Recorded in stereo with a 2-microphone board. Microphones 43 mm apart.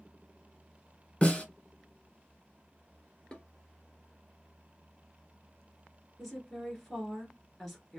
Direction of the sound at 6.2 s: Centre (ahead or behind).